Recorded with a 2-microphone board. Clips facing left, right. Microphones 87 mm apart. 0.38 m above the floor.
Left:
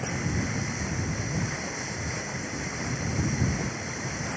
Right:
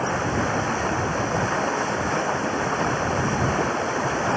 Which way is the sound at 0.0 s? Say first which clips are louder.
Right 8 dB; 70° right (ahead or behind).